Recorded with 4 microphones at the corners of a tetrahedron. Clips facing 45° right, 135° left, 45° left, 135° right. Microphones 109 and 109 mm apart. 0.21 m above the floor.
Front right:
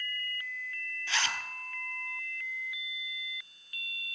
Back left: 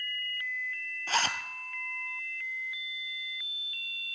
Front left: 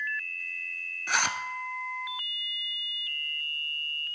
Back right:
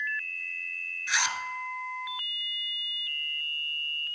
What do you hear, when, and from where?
1.1 s a zipper: 85° left, 0.8 m